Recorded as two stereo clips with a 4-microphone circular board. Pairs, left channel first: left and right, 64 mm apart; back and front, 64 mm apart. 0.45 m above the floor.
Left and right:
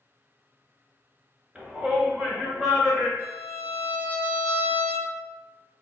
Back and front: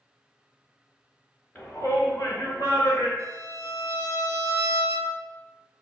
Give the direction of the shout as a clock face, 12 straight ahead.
5 o'clock.